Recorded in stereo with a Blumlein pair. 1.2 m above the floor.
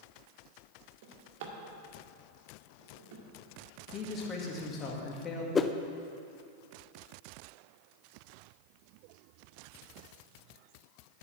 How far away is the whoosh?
About 0.7 m.